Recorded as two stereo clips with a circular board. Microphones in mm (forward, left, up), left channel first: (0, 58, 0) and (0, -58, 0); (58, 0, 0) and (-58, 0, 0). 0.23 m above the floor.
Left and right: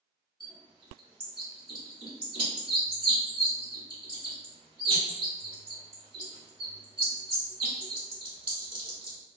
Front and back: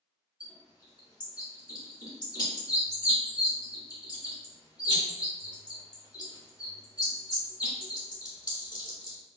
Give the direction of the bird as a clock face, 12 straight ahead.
2 o'clock.